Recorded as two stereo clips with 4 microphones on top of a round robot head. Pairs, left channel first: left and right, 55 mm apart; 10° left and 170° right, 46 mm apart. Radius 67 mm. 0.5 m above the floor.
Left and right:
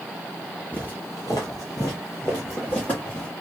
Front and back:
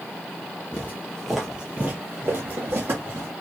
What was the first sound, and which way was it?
Footsteps, 30° left.